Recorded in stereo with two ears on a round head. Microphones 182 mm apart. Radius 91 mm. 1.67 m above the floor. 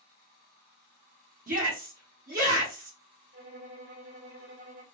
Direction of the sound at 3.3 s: 60° right (ahead or behind).